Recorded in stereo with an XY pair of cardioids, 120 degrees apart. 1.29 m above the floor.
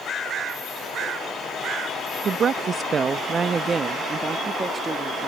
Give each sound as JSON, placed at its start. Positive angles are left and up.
{"t": 2.2, "sound": "a woman speaking", "azimuth_deg": -45}